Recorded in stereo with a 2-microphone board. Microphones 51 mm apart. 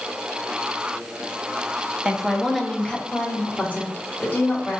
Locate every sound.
2.0 s a woman speaking: 15° right (ahead or behind), 0.7 m; by 4.8 s 40° left (ahead or behind), 1.9 m